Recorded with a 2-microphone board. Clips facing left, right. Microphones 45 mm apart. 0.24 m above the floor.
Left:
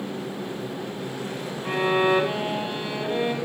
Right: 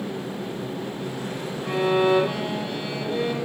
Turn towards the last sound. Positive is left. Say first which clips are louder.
# right 1 dB
turn(degrees=30)  # may be behind; listen again after turning